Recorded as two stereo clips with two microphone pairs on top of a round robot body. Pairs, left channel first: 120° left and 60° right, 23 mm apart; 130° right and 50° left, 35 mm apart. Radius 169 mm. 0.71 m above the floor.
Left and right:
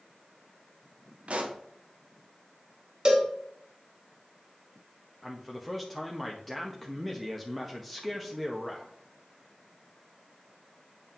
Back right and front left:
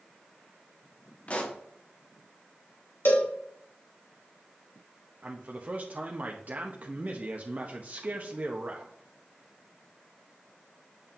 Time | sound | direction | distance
1.3 | a pop | 80° right | 1.1 m
3.0 | a cowbell | 115° right | 1.5 m
5.2 | a man speaking | 35° left | 1.1 m